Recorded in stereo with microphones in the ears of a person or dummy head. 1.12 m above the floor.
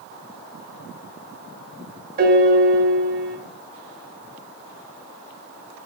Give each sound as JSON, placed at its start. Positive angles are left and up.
{"t": 2.2, "sound": "a piano", "side_deg": -50, "distance_m": 0.5}